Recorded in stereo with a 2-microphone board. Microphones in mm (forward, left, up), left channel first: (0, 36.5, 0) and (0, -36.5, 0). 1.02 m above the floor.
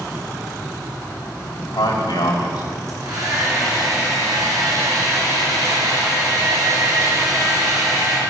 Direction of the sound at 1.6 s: 80° left.